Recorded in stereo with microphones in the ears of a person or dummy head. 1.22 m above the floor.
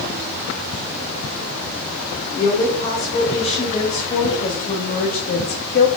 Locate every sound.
2.4 s a woman speaking: 30° left (ahead or behind), 3.5 m; by 5.9 s 55° left (ahead or behind), 1.8 m